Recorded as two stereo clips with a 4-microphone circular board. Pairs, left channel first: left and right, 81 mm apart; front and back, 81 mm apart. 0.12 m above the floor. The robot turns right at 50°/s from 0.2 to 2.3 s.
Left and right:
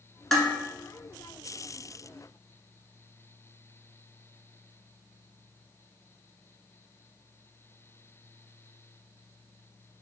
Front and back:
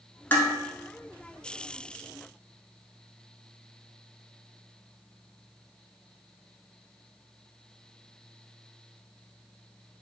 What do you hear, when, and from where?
0.3 s dishes clattering: 15° left, 0.9 m; by 0.5 s 25° left, 0.9 m